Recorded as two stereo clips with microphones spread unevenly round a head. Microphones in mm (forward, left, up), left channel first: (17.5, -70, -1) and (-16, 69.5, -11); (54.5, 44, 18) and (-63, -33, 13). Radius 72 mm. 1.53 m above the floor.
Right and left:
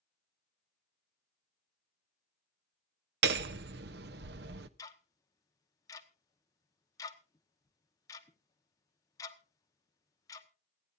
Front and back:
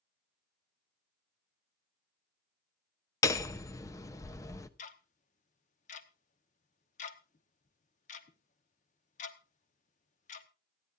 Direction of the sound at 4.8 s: 10° right.